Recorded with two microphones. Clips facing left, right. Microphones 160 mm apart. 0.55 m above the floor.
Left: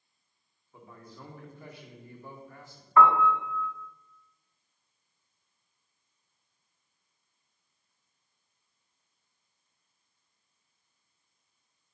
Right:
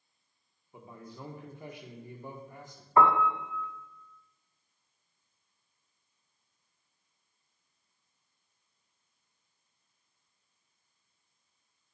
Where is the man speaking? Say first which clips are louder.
Right 2 dB; 20° right (ahead or behind), 1.1 m.